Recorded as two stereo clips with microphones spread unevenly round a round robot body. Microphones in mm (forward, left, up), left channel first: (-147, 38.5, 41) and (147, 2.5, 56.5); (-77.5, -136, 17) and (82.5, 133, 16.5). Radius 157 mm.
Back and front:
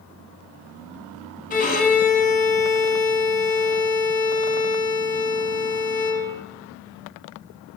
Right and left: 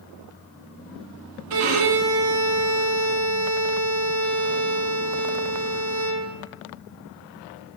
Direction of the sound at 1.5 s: 110° left.